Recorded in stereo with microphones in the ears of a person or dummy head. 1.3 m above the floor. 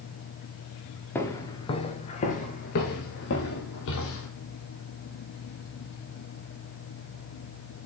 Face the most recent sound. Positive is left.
turn(degrees=65)  # may be behind; listen again after turning